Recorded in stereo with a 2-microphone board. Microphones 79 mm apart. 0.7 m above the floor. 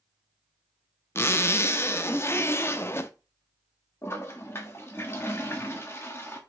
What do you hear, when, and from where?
1.1 s a zipper: 35° left (ahead or behind), 0.7 m
4.0 s a toilet flushing: 35° left (ahead or behind), 1.4 m